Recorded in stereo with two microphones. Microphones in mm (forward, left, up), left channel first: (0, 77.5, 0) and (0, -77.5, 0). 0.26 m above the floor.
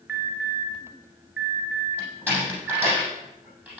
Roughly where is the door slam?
Centre.